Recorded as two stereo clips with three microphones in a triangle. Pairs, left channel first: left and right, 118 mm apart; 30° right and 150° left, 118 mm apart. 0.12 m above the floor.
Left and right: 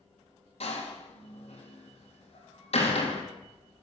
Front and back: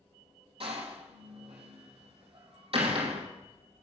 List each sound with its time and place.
0.6 s a door slam: 115° left, 2.5 m